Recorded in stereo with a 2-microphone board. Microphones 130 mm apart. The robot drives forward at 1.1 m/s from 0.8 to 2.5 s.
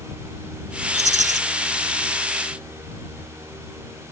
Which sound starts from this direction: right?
A rattle, at 0.9 s.